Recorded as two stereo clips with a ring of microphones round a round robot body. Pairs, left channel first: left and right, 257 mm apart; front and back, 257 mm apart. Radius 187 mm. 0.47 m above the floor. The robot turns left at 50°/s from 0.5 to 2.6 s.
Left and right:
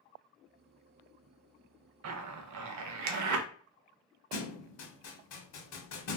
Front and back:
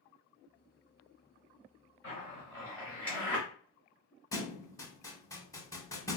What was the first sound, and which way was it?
A zipper, 55° right.